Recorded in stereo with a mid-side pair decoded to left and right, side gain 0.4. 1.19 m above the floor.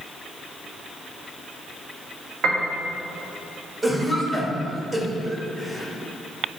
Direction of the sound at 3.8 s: 20° right.